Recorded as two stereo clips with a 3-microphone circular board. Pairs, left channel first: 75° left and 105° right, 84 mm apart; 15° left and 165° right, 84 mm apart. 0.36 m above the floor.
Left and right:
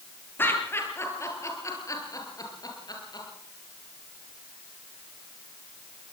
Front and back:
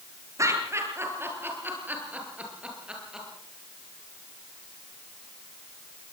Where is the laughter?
140° left, 8 m; by 3.3 s 110° left, 8 m.